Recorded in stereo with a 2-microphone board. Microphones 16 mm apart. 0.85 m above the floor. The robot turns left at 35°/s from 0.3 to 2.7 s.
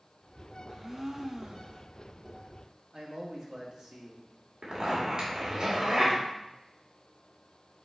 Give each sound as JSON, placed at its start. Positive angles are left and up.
{"t": 0.7, "sound": "a blender", "azimuth_deg": -25, "distance_m": 0.6}
{"t": 2.9, "sound": "a man speaking", "side_deg": -55, "distance_m": 1.6}
{"t": 4.6, "sound": "a zipper", "side_deg": -65, "distance_m": 2.0}